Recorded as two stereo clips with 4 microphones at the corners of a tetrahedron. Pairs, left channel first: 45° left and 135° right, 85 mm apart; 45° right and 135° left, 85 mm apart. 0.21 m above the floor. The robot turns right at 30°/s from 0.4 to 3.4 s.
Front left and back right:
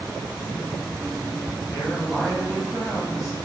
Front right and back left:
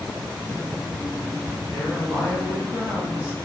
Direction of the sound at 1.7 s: 85° left.